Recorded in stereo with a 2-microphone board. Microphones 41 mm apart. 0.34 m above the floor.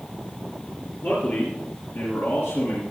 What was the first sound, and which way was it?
A man speaking, 55° left (ahead or behind).